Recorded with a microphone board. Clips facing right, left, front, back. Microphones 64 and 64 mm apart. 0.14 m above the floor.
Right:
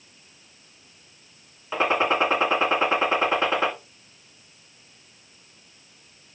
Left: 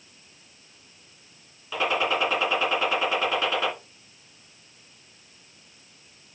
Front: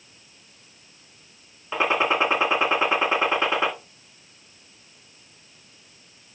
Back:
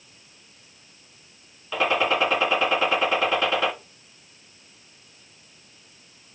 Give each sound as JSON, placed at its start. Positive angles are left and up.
{"t": 1.7, "sound": "a gunshot", "azimuth_deg": -50, "distance_m": 2.0}